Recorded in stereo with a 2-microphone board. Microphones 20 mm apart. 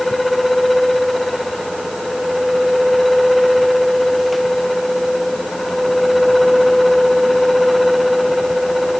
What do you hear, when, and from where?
Only background noise.